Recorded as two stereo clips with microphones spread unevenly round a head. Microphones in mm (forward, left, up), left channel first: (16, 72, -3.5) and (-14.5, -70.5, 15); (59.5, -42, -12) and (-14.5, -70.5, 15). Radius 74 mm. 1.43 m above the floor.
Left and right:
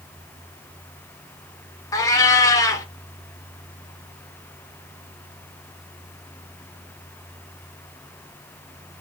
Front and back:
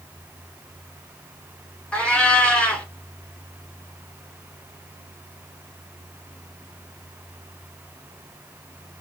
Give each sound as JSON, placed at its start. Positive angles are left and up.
{"t": 1.9, "sound": "a cat meowing", "azimuth_deg": 130, "distance_m": 1.4}